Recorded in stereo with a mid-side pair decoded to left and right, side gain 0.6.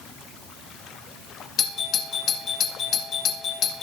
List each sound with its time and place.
1.6 s a doorbell: 50° left, 2.0 m